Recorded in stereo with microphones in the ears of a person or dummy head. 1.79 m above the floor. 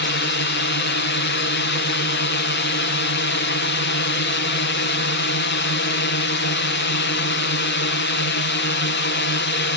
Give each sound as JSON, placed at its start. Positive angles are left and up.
{"t": 0.0, "sound": "a drone", "side_deg": 55}